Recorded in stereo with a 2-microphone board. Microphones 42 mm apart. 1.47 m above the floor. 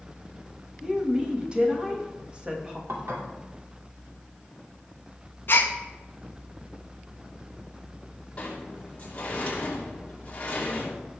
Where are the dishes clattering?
75° right (ahead or behind), 2.5 m.